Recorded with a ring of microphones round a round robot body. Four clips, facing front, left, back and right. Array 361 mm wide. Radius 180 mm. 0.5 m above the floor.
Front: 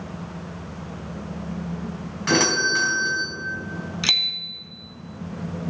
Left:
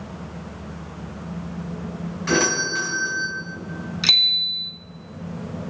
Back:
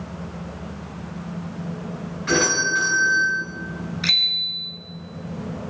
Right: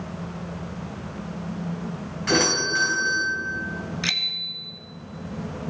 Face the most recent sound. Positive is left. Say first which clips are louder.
# left 2 dB, back 1 dB
turn(degrees=35)